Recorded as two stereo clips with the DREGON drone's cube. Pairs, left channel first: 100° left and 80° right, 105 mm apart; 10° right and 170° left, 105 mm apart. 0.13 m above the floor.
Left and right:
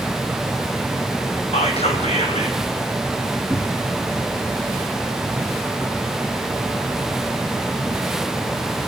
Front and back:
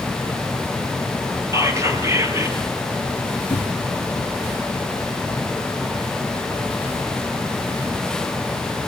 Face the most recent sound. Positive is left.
turn(degrees=30)